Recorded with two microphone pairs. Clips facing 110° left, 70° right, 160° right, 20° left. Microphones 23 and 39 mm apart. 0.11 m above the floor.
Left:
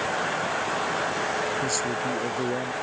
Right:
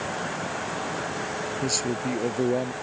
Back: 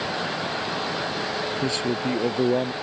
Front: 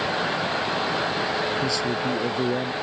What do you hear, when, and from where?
1.6 s a man speaking: 125° right